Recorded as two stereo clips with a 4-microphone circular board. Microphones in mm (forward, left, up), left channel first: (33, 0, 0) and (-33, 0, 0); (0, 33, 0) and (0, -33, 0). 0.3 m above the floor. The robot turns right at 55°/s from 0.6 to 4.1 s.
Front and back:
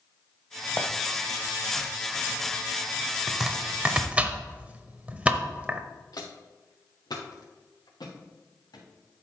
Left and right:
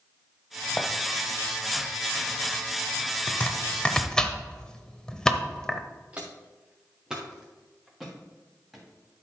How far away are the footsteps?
About 1.8 m.